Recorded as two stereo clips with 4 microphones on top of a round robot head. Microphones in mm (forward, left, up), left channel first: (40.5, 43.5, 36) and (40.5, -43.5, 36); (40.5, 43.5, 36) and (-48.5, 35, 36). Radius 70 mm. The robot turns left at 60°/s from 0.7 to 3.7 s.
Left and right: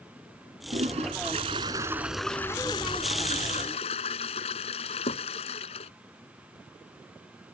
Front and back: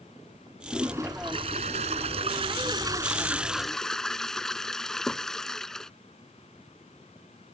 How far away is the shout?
No shout in this recording.